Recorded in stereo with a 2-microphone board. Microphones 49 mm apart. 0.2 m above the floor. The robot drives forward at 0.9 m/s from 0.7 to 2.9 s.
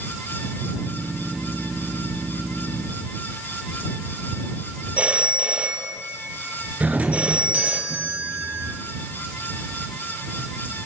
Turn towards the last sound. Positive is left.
turn(degrees=-30)  # may be behind; listen again after turning